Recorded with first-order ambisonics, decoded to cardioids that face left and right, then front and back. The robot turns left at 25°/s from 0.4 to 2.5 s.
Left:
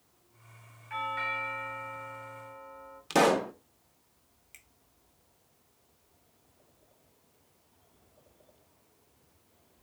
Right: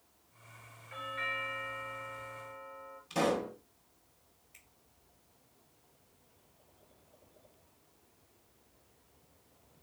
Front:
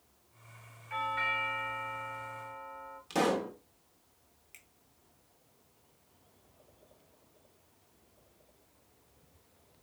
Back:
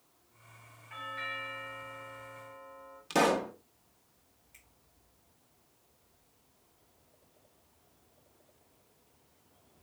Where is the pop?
110° left, 0.5 m.